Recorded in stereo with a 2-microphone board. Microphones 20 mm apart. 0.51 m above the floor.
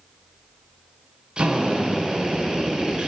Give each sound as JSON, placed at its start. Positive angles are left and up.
{"t": 1.4, "sound": "a drill", "side_deg": -50, "distance_m": 2.0}